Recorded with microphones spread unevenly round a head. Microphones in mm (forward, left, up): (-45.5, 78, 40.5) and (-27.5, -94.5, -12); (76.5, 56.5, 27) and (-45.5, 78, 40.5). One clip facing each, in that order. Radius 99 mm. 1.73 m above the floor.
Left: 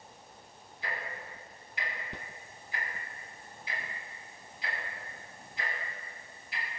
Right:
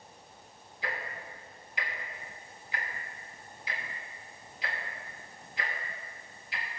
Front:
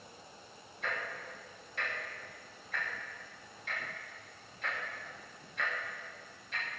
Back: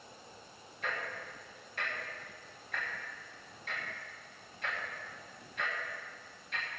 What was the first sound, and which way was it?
Ticking, 105° right.